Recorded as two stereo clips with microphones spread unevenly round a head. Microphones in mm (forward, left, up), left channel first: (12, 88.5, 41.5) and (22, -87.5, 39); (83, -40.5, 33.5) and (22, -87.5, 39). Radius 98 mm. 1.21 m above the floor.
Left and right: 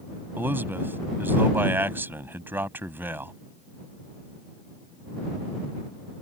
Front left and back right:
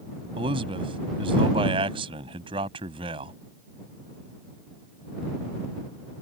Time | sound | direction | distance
0.4 | a man speaking | 165° right | ?